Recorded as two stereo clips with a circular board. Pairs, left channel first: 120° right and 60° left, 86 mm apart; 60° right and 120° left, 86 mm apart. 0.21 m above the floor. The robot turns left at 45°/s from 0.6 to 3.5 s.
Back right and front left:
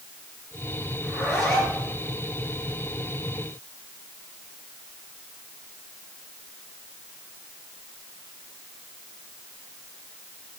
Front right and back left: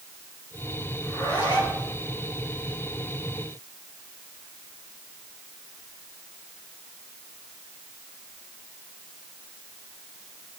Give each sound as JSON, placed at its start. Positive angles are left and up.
{"t": 1.0, "sound": "a zipper", "azimuth_deg": -15, "distance_m": 3.0}